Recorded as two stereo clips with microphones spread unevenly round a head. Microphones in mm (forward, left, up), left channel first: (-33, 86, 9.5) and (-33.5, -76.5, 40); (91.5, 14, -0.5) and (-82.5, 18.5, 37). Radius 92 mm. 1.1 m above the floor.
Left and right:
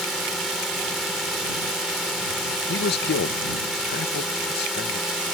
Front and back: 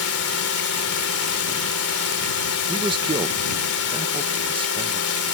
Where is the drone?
Straight ahead.